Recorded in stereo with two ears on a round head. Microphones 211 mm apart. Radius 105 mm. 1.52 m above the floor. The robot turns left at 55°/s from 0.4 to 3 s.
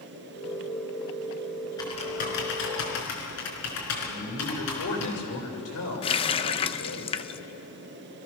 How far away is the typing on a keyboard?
About 5 m.